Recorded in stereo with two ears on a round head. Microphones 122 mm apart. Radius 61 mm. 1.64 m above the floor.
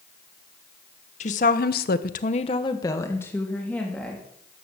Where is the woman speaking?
55° left (ahead or behind), 1.5 m; by 4.2 s 5° left (ahead or behind), 3.5 m.